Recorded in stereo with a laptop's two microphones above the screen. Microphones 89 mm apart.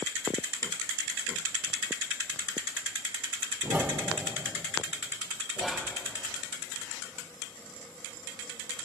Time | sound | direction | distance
3.6 | a whoosh | 20° right (ahead or behind) | 0.6 m
5.6 | whispering | 5° right (ahead or behind) | 0.8 m